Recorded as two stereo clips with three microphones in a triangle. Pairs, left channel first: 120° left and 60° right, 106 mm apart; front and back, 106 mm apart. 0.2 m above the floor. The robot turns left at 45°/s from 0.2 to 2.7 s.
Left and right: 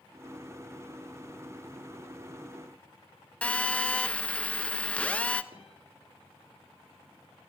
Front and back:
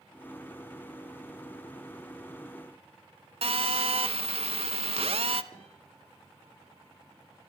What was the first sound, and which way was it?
A phone buzzing, 165° right.